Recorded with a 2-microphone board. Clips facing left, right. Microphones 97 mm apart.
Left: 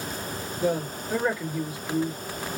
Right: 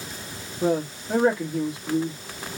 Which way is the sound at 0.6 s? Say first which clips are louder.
Right 3 dB; 55° right (ahead or behind).